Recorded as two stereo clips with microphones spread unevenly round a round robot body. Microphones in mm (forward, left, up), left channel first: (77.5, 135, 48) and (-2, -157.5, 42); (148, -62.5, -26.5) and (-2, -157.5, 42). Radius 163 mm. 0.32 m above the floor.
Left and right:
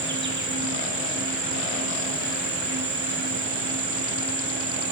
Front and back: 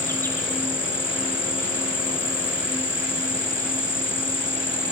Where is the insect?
50° right, 1.8 m.